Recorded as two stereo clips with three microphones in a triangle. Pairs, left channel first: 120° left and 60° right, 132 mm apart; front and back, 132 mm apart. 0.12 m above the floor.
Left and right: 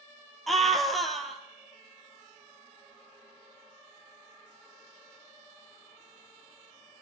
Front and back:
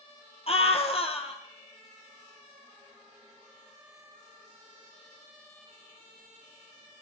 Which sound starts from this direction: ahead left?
A scream, at 0.5 s.